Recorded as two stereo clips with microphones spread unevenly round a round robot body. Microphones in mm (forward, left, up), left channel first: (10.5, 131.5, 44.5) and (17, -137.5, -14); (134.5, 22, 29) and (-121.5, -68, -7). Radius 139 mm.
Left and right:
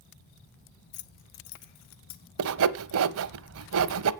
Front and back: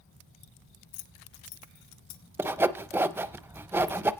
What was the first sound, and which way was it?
Keys jangling, 30° left.